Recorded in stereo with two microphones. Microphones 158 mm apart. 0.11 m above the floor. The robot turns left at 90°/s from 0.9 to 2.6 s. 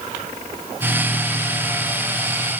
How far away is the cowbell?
I don't hear a cowbell.